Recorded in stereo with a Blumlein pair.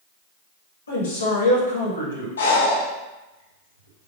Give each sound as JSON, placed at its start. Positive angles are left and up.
{"t": 0.9, "sound": "a man speaking", "azimuth_deg": 70, "distance_m": 1.2}
{"t": 2.4, "sound": "breathing", "azimuth_deg": 65, "distance_m": 0.6}